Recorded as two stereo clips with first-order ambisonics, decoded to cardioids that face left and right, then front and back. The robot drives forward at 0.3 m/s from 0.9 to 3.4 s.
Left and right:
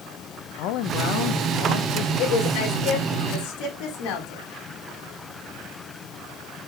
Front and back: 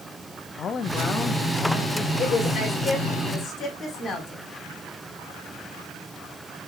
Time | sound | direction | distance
0.6 | a man speaking | 65° left | 0.7 m
2.2 | a woman speaking | 70° left | 3.5 m